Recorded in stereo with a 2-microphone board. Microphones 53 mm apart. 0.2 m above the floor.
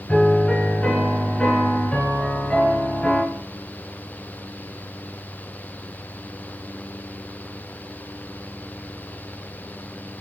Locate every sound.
0.1 s a piano: 10° left (ahead or behind), 1.2 m